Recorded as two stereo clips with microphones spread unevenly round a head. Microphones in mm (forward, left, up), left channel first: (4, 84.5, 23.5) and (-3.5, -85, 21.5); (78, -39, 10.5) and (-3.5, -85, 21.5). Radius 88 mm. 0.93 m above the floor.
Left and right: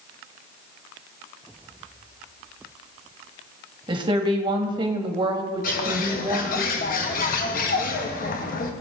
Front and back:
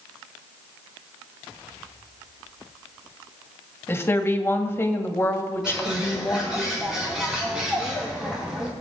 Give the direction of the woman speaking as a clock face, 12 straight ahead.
1 o'clock.